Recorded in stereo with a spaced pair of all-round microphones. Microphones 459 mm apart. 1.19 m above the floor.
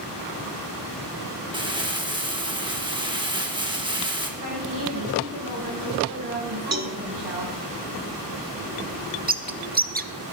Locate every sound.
1.5 s crumpling: 10° right (ahead or behind), 1.4 m
4.4 s a woman speaking: 60° right (ahead or behind), 7.5 m
6.7 s a cowbell: 35° right (ahead or behind), 0.8 m
9.3 s a bird: 20° right (ahead or behind), 0.6 m